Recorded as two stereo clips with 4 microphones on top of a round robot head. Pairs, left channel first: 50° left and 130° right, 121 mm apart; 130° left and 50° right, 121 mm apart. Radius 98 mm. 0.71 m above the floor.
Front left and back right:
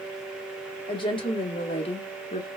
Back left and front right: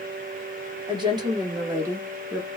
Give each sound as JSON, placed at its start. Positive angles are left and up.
{"t": 0.9, "sound": "a woman speaking", "azimuth_deg": 0, "distance_m": 2.0}